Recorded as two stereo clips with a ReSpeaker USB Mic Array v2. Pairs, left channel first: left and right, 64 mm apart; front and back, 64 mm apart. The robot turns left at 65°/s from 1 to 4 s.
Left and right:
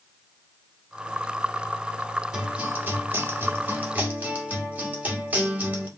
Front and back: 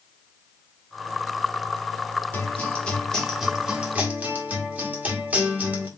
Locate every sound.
2.3 s a guitar: 25° right, 1.1 m; by 5.9 s 135° right, 1.1 m